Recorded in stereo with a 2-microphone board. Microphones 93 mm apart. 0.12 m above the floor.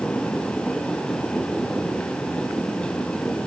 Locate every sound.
Only background noise.